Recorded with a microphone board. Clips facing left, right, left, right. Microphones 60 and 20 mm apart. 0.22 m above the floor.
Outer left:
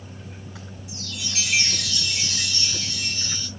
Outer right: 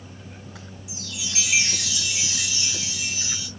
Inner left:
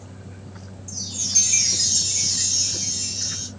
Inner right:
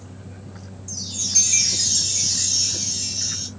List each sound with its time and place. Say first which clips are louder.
0.9 s a chime: even, inner right 1 dB; 5° right (ahead or behind), 1.5 m